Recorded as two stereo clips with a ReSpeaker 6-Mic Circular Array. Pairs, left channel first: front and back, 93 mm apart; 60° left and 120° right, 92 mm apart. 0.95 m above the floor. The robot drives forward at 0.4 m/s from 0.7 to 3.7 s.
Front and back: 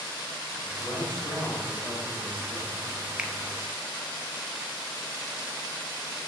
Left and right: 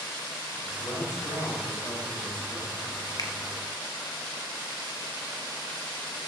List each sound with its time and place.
0.8 s a man speaking: 55° left, 3 m; by 2.8 s 70° left, 2.5 m
3.2 s a finger snap: 100° left, 0.5 m; by 3.3 s 110° left, 0.6 m